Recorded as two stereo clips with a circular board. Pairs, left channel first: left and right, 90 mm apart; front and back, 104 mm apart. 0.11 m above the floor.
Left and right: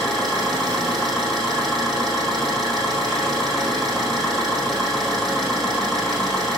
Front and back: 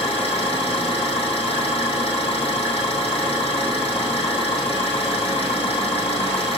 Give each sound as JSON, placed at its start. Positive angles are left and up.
{"t": 0.0, "sound": "an engine running", "azimuth_deg": 5, "distance_m": 3.5}